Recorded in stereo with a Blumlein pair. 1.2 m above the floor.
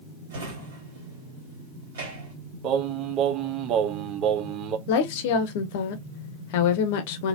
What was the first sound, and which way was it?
A drawer, 55° right.